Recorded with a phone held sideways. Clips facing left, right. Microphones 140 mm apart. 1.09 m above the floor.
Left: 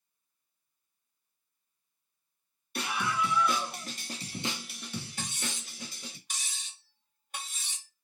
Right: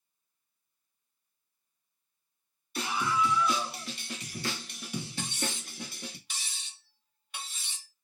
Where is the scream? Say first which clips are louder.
Right 2 dB; 65° left (ahead or behind), 1.4 m; by 6.2 s 65° right (ahead or behind), 1.0 m.